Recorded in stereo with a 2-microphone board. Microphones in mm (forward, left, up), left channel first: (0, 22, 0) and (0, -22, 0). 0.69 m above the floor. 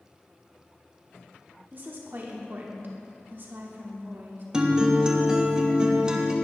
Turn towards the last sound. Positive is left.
turn(degrees=-20)  # may be behind; listen again after turning